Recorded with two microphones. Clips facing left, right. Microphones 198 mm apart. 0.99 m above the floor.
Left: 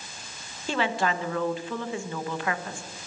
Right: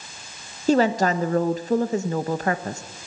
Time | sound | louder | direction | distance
0.7 | a woman speaking | right 8 dB | 40° right (ahead or behind) | 1.1 m